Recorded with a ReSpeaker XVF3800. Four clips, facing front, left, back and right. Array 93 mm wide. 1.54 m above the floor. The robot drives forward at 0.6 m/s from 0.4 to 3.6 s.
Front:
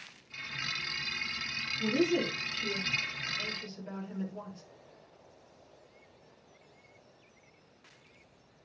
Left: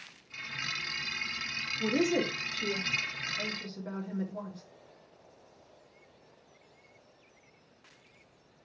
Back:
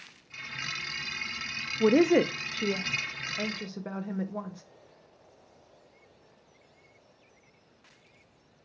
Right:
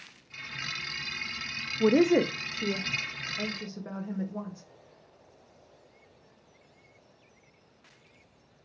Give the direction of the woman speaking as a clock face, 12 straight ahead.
5 o'clock.